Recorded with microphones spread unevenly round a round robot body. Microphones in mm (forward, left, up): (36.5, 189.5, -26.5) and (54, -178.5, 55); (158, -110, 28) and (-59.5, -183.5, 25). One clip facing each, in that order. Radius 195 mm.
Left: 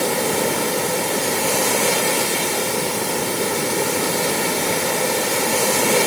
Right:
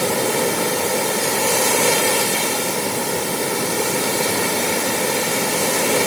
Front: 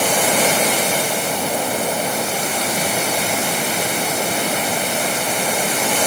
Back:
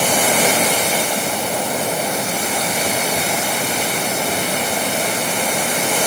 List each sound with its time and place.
Only background noise.